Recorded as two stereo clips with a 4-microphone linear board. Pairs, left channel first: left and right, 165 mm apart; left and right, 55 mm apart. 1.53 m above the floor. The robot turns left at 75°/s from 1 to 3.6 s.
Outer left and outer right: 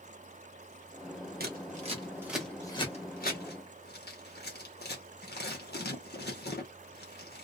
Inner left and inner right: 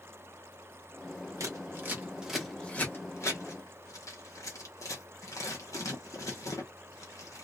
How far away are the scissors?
About 1.3 m.